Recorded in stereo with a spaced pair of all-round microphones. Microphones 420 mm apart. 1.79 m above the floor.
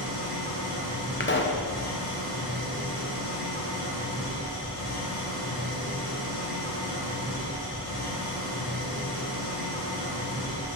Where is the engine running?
60° left (ahead or behind), 2 m.